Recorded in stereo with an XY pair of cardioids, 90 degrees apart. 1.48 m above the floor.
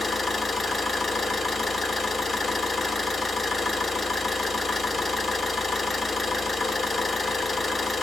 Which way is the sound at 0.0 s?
30° left.